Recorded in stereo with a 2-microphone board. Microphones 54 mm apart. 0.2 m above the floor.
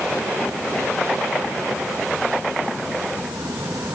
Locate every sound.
Only background noise.